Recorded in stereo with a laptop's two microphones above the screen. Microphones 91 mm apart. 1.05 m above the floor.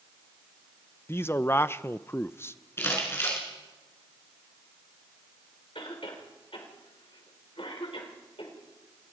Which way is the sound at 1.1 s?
25° left (ahead or behind).